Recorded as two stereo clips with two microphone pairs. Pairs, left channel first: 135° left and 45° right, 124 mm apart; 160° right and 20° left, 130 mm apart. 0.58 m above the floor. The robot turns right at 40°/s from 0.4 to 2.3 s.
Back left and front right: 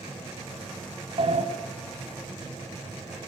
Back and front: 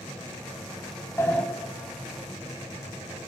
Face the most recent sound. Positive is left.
turn(degrees=-40)